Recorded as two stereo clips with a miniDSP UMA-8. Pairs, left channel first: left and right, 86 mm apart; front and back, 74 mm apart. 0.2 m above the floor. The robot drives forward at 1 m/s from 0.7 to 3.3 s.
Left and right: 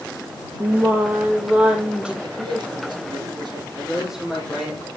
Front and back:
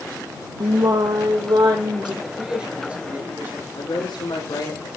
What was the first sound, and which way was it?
Singing, 155° right.